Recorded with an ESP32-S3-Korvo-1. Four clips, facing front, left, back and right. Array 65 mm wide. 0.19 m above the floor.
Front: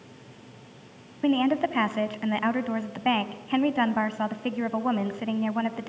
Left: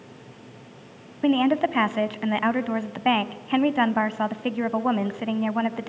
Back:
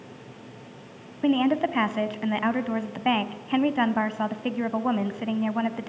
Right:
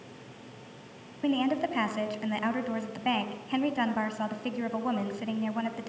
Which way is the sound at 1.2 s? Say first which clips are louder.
Left 7 dB, back 1 dB; 85° left.